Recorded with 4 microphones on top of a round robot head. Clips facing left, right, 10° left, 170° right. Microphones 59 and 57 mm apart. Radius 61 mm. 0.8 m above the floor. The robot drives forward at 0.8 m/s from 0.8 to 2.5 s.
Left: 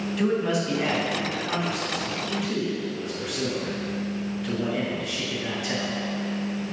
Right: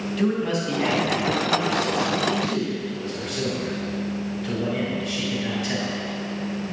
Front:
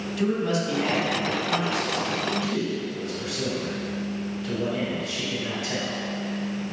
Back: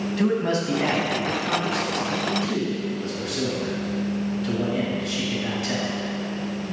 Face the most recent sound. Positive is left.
turn(degrees=175)